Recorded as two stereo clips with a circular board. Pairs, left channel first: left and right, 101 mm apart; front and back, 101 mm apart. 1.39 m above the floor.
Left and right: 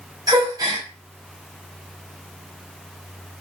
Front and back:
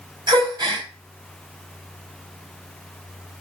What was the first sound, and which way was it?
A gasp, 135° right.